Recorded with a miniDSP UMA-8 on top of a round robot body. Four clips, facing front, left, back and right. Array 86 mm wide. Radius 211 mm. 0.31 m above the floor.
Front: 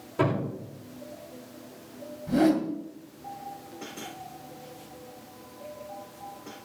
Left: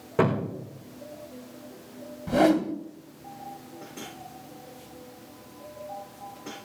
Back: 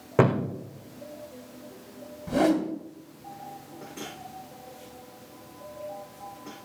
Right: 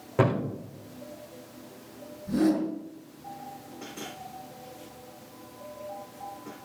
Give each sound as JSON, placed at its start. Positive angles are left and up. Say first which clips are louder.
{"t": 0.2, "sound": "a thud", "louder": "left 1 dB, back 4 dB", "azimuth_deg": 180, "distance_m": 4.5}
{"t": 2.3, "sound": "a whoosh", "louder": "left 3 dB, front 1 dB", "azimuth_deg": 115, "distance_m": 1.6}